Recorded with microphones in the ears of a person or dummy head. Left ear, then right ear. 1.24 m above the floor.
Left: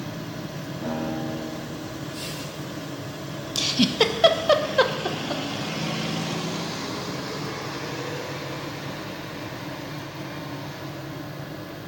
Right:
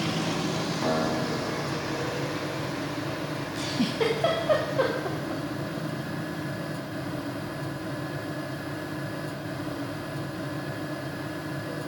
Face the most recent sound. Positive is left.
turn(degrees=50)  # may be behind; listen again after turning